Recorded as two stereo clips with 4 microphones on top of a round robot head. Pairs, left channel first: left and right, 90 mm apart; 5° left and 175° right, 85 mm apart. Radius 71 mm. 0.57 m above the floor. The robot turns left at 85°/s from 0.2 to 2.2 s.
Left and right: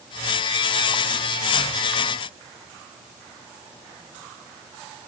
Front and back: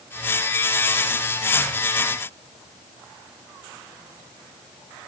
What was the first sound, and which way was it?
Only background noise.